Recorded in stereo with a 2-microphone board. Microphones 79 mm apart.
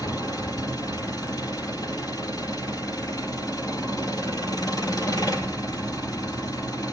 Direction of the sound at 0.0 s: 60° left (ahead or behind).